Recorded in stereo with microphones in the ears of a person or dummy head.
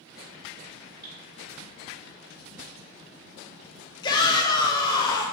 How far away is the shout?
About 0.8 m.